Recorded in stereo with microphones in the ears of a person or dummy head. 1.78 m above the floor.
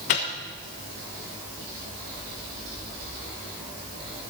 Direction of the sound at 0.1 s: 35° left (ahead or behind).